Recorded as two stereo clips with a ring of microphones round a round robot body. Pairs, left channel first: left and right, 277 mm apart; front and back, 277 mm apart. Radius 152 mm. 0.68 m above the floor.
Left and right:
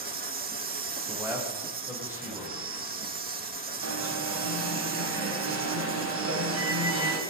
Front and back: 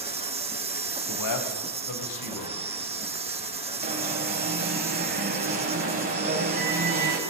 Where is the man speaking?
5° right, 3.5 m.